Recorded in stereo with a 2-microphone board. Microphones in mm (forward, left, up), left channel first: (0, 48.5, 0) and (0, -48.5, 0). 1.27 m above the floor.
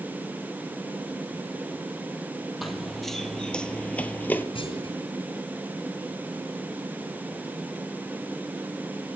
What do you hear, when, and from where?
2.6 s running footsteps: centre (ahead or behind), 1.6 m; by 4.5 s 20° left (ahead or behind), 1.3 m
4.5 s a clunk: 70° left (ahead or behind), 7 m